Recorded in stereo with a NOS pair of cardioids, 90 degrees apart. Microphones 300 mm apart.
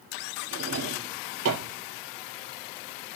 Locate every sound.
0.5 s a drawer: 50° right, 4.5 m